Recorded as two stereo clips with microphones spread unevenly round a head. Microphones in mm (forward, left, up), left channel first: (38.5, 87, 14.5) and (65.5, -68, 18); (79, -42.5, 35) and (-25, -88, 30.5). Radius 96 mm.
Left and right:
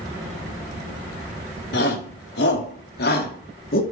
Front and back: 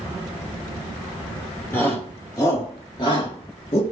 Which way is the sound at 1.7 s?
100° left.